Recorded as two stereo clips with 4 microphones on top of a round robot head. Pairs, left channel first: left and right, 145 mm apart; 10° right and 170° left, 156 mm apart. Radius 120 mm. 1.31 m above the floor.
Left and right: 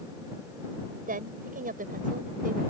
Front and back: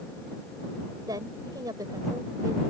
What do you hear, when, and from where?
1.1 s a woman speaking: 115° right